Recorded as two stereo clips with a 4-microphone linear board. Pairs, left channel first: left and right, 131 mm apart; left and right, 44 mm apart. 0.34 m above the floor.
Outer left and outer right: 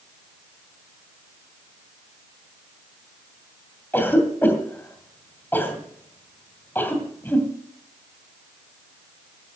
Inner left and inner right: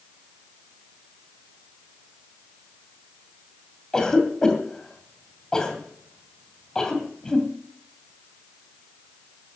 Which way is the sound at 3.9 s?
15° left (ahead or behind).